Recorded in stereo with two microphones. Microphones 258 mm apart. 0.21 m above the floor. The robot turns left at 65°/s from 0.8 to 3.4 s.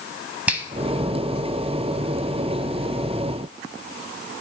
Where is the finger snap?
5° right (ahead or behind), 0.9 m.